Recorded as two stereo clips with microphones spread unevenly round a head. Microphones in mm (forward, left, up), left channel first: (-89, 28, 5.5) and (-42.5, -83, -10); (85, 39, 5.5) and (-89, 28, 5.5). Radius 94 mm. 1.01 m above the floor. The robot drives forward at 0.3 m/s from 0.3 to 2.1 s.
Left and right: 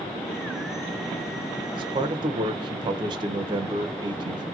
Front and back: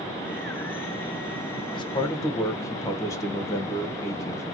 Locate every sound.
1.8 s a man speaking: 50° right, 0.6 m; by 4.5 s 65° right, 0.6 m